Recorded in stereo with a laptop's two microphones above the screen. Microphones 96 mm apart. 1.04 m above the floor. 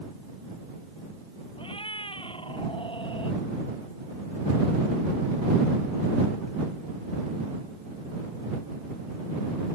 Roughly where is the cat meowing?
Left.